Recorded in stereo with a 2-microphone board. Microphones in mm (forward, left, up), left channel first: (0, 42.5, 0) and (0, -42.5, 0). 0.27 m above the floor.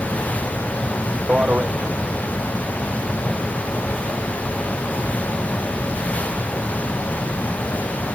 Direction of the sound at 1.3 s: 15° right (ahead or behind).